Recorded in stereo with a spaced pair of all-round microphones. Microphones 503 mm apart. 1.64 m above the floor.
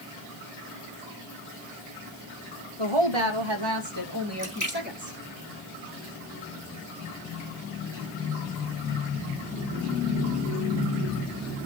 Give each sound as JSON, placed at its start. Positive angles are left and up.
{"t": 2.8, "sound": "a woman speaking", "side_deg": -75, "distance_m": 2.5}
{"t": 4.4, "sound": "a splash", "side_deg": 35, "distance_m": 2.0}